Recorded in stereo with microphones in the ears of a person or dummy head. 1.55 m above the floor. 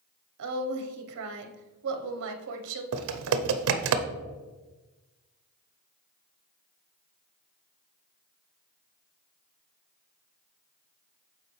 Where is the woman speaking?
60° right (ahead or behind), 0.9 m.